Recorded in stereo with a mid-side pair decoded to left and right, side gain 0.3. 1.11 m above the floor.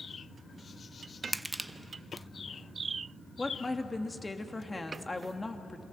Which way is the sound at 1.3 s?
15° right.